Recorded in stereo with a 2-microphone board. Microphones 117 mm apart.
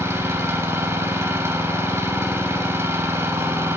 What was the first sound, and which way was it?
An engine running, 25° right (ahead or behind).